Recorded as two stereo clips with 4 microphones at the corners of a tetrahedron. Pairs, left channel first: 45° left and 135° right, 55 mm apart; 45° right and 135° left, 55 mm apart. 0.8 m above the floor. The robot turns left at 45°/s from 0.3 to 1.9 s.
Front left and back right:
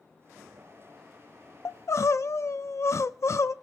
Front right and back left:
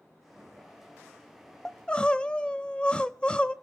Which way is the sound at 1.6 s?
35° left.